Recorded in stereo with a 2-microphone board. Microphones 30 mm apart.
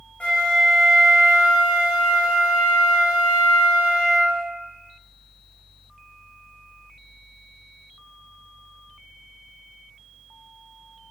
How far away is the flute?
About 0.7 m.